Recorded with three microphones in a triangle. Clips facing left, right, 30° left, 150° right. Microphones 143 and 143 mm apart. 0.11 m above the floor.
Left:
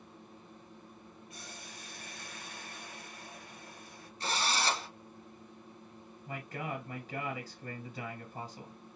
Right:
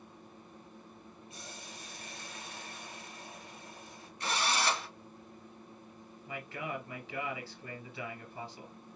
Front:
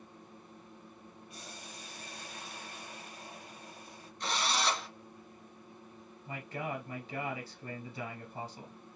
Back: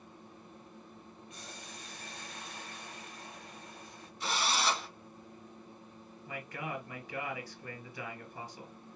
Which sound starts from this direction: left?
A man speaking, at 6.3 s.